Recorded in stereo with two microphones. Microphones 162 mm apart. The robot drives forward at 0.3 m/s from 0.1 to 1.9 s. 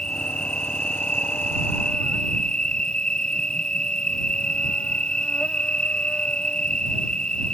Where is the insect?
5° left (ahead or behind).